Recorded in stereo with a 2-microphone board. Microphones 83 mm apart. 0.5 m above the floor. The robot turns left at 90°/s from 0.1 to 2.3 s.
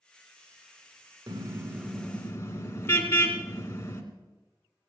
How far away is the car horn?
About 2 m.